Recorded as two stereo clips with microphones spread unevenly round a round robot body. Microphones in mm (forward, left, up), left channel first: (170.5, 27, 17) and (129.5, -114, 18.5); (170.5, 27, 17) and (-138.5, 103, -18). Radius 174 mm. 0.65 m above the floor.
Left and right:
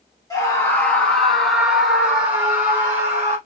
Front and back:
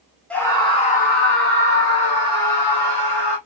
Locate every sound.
0.3 s a scream: 80° left, 1.0 m; by 3.4 s 40° right, 1.7 m